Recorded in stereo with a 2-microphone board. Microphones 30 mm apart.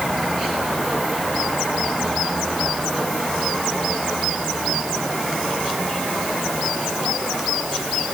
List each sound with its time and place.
Only background noise.